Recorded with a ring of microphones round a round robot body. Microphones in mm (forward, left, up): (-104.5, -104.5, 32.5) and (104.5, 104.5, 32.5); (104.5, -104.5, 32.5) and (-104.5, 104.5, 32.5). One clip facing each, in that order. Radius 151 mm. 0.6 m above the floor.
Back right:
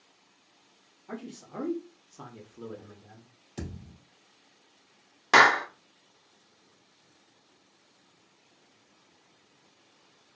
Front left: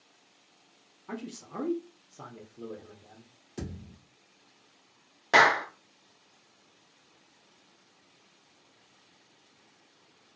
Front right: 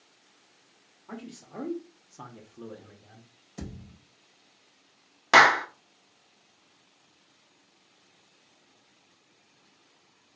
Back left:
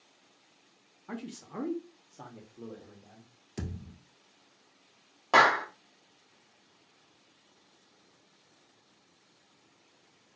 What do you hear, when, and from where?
1.1 s a man speaking: 100° left, 0.8 m; by 3.3 s 85° right, 1.1 m
3.6 s a thud: 150° left, 1.8 m
5.3 s a clap: 75° right, 0.6 m